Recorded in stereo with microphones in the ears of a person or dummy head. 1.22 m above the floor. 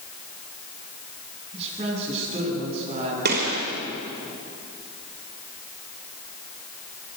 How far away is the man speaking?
About 9 m.